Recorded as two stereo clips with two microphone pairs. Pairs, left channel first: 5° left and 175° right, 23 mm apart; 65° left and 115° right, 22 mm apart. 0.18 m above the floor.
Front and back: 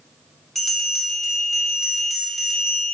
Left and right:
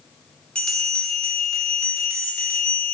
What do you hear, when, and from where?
0.6 s a bell: 80° left, 0.8 m